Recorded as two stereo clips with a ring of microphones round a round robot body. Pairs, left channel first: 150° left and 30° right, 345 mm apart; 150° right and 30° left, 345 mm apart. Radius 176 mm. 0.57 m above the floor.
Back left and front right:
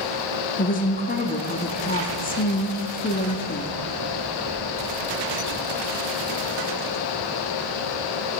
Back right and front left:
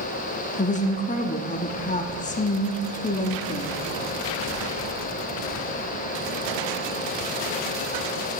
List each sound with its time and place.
0.6 s a woman speaking: 175° left, 0.6 m